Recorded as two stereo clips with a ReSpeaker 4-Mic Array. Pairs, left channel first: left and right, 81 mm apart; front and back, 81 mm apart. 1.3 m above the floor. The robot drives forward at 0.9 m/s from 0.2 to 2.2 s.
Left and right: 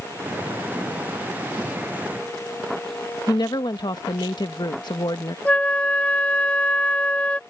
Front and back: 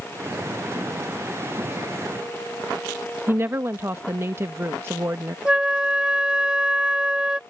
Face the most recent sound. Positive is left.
turn(degrees=125)